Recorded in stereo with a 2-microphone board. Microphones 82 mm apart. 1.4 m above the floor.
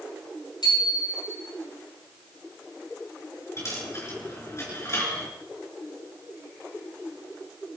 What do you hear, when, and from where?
0.6 s a bicycle bell: 70° left (ahead or behind), 9.5 m
3.6 s a dropped coin: 35° left (ahead or behind), 4.5 m